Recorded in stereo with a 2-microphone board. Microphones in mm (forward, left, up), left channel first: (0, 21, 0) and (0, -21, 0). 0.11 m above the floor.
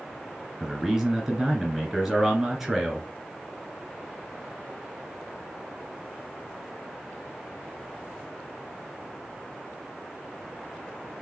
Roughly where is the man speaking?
Centre.